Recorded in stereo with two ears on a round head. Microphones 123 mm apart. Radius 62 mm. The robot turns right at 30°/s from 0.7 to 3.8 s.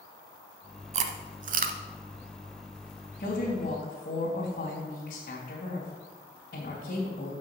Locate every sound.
0.9 s chewing: 50° right (ahead or behind), 0.8 m; by 1.8 s 75° right (ahead or behind), 0.8 m
3.2 s a woman speaking: 55° left (ahead or behind), 3 m; by 7.3 s 65° left (ahead or behind), 3 m